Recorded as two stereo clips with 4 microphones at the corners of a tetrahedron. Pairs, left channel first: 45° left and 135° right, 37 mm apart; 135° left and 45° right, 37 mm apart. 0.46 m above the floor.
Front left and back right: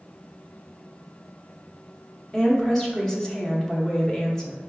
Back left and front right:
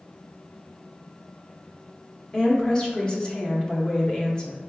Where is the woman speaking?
100° left, 0.9 m.